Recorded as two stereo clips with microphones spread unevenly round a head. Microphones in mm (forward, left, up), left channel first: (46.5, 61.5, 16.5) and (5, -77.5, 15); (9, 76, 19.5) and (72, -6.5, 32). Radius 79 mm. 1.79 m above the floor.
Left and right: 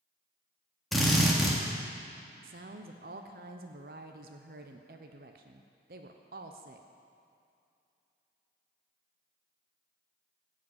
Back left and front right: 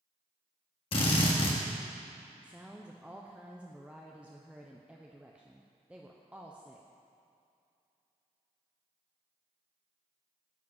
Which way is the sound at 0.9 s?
165° left.